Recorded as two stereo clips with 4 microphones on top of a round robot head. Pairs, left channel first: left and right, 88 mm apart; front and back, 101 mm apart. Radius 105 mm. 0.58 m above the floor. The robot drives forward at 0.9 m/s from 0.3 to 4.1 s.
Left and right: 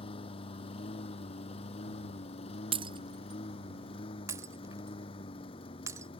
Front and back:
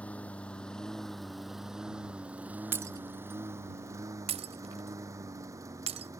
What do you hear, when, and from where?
0.0 s a lawn mower: 80° left; by 6.2 s 125° left
2.7 s breaking glass: 110° right; by 6.1 s 150° right